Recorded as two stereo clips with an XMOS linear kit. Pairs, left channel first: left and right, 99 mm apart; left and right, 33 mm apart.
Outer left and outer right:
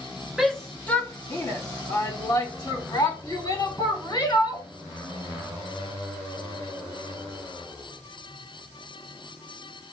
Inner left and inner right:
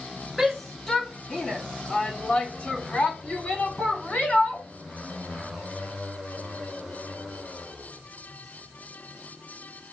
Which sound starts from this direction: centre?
A shout, at 0.4 s.